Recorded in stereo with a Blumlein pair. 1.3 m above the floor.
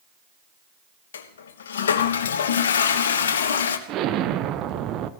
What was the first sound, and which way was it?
A toilet flushing, 60° left.